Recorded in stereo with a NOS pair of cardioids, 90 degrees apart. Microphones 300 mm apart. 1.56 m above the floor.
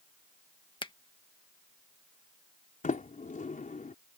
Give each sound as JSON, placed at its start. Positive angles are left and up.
{"t": 0.8, "sound": "a finger snap", "azimuth_deg": 15}
{"t": 2.8, "sound": "a sliding door", "azimuth_deg": 25}